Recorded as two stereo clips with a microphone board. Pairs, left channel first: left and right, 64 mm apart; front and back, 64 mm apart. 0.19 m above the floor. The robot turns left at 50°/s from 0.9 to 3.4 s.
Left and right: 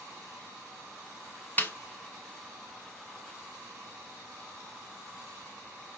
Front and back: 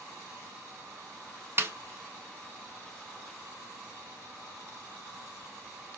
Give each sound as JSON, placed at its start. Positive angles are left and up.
{"t": 1.6, "sound": "a snare drum", "azimuth_deg": 145, "distance_m": 0.8}